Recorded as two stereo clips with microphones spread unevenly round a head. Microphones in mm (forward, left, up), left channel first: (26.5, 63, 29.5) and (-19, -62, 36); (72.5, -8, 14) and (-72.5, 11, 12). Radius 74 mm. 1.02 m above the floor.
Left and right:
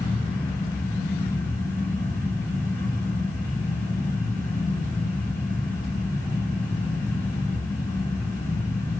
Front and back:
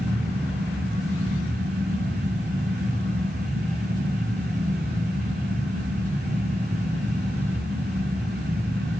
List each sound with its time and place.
0.0 s a fan: 140° left, 7 m